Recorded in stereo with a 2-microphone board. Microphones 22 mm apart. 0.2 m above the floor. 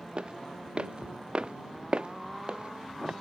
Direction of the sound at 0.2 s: 50° right (ahead or behind).